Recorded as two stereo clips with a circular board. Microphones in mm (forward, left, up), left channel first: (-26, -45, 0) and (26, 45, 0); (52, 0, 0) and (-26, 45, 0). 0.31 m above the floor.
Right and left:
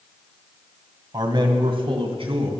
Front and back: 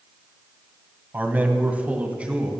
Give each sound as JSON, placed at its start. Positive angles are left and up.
{"t": 1.1, "sound": "a man speaking", "azimuth_deg": 90, "distance_m": 2.0}